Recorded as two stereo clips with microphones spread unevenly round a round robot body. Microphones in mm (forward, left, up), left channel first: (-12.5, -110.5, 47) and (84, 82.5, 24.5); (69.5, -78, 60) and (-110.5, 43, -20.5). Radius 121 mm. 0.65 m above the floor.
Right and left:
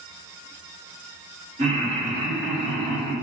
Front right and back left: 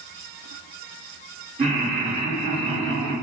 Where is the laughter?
110° left, 1.6 m; by 3.1 s straight behind, 1.3 m.